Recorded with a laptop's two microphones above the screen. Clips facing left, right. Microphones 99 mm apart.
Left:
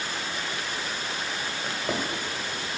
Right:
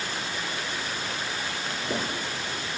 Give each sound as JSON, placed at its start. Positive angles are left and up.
{"t": 1.6, "sound": "a drawer", "side_deg": 60, "distance_m": 1.6}